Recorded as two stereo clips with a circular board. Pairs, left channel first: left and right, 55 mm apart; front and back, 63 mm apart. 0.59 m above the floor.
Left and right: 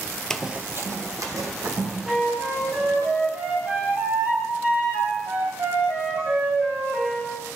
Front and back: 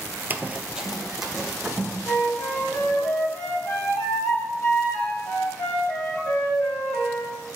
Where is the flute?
35° right, 3 m.